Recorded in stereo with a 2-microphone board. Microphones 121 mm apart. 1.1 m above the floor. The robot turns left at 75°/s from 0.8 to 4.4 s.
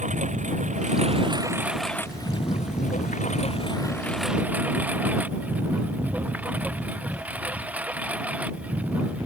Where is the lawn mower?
75° right (ahead or behind); by 9.3 s 10° right (ahead or behind).